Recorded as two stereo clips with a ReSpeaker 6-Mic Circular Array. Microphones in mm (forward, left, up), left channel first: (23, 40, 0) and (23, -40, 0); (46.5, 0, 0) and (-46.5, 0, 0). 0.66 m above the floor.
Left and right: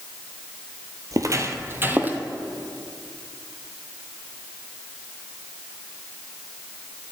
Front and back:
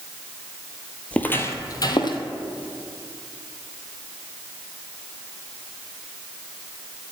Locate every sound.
1.1 s footsteps: 70° right, 0.8 m; by 2.2 s 20° right, 1.2 m